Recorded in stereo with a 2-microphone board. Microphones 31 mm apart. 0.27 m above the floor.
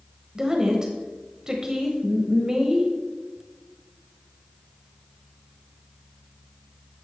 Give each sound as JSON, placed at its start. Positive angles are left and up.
{"t": 0.3, "sound": "a woman speaking", "side_deg": -20, "distance_m": 1.0}